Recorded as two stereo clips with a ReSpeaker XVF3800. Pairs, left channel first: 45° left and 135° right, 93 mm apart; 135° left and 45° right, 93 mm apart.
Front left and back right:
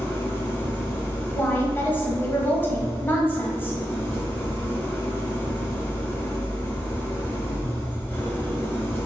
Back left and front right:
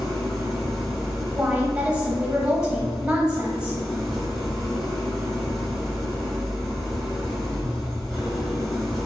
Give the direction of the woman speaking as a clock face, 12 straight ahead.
11 o'clock.